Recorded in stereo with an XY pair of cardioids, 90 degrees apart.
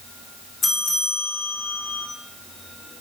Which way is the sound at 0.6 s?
50° left.